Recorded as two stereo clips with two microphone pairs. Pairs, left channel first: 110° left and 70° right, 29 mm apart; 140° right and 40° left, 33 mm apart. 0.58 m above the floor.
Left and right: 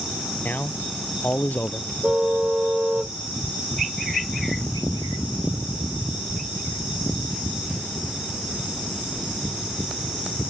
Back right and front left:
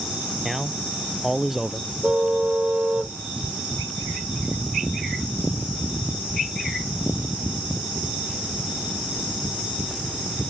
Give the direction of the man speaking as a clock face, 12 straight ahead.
8 o'clock.